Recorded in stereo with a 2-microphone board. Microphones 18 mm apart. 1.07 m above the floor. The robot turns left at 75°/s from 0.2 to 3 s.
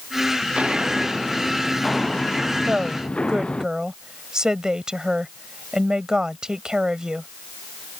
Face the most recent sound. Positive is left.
turn(degrees=-35)  # may be behind; listen again after turning